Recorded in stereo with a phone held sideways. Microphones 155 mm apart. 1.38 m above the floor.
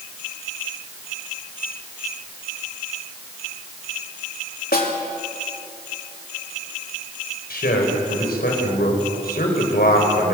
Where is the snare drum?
75° left (ahead or behind), 3 m.